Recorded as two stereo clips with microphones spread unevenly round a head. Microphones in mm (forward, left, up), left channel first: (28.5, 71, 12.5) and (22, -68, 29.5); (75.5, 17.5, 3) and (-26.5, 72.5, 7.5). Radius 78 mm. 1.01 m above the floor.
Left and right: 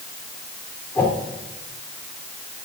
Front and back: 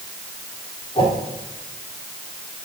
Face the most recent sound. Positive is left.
turn(degrees=10)